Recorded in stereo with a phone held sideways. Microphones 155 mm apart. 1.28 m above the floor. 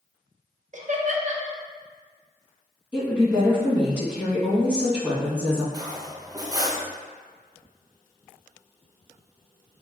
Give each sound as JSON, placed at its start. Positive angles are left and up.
{"t": 0.7, "sound": "laughter", "side_deg": -50, "distance_m": 0.7}
{"t": 2.9, "sound": "a woman speaking", "side_deg": -10, "distance_m": 1.8}
{"t": 5.7, "sound": "cutlery clinking", "side_deg": -25, "distance_m": 0.5}